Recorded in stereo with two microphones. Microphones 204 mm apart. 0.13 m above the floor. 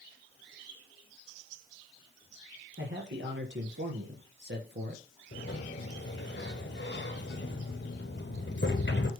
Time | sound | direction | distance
2.8 | a man speaking | 70° right (ahead or behind) | 4.5 m
5.3 | a sliding door | 65° left (ahead or behind) | 1.8 m